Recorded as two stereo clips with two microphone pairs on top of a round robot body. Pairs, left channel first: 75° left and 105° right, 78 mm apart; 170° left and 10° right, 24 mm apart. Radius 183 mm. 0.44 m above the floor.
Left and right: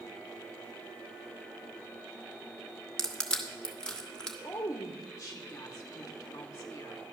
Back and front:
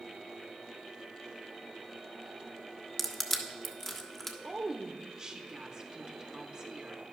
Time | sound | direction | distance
3.0 | crushing | 135° left | 1.4 m
4.4 | a woman speaking | 45° left | 1.1 m